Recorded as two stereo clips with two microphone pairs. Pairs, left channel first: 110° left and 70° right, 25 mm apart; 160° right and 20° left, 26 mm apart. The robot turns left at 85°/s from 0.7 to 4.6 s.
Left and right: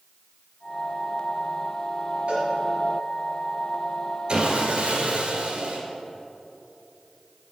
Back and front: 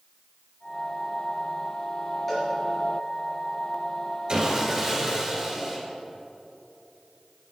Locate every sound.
2.3 s a cowbell: 80° right, 3 m; by 2.5 s 95° right, 3 m
4.3 s sawing: 20° right, 2 m; by 5.8 s 45° right, 2 m